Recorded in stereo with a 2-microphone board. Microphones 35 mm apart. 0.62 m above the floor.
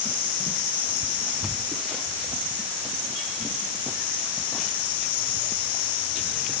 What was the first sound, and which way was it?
Only background noise.